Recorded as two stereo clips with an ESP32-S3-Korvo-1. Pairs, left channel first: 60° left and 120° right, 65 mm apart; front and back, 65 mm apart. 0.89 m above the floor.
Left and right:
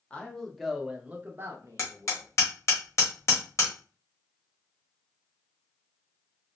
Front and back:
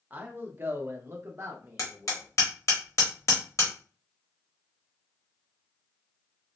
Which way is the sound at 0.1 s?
125° left.